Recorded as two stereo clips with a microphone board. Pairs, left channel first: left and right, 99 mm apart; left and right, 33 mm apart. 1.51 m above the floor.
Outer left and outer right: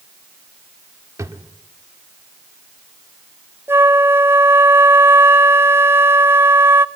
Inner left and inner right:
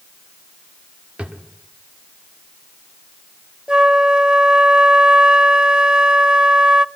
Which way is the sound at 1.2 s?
30° right (ahead or behind).